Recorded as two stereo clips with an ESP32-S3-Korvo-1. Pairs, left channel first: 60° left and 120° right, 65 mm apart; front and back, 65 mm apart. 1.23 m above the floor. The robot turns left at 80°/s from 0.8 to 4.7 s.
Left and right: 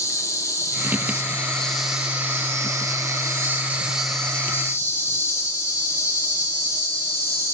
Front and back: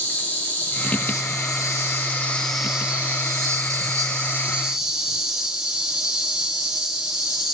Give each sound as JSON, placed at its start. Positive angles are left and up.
{"t": 0.0, "sound": "an insect", "azimuth_deg": 55, "distance_m": 1.2}